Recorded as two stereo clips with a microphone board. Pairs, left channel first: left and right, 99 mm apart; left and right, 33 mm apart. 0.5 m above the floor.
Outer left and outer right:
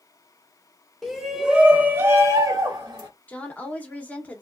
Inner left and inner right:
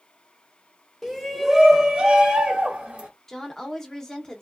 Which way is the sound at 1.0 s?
Centre (ahead or behind).